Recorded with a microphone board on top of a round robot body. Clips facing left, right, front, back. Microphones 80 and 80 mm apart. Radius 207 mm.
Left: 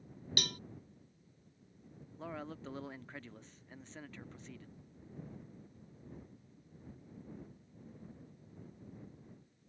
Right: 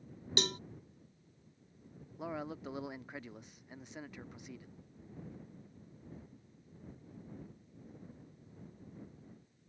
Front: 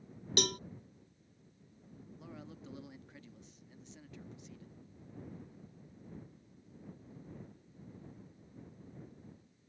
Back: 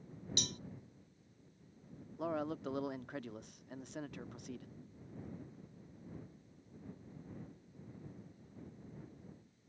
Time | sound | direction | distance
0.4 | a cowbell | 25° right | ?
2.2 | a man speaking | 165° right | ?